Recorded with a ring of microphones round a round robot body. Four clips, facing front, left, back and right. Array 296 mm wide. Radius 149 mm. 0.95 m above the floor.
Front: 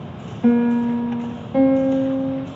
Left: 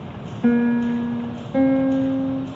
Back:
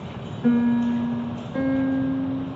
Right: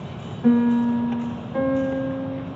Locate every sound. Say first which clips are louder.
0.4 s a piano: even, front 3 dB; 35° left, 1.9 m